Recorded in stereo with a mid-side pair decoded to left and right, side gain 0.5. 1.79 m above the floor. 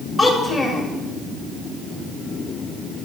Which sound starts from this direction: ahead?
A child speaking, at 0.2 s.